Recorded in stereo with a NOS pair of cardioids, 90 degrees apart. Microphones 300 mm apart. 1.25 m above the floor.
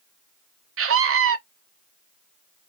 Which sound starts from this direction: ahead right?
A scream, at 0.8 s.